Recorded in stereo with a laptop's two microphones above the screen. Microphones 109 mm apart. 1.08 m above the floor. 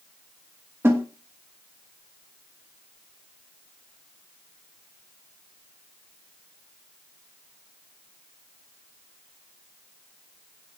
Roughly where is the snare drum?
Right.